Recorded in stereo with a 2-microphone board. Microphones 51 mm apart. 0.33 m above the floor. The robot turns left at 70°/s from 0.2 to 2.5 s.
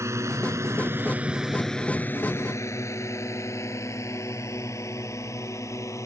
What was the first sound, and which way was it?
A drone, 65° right (ahead or behind).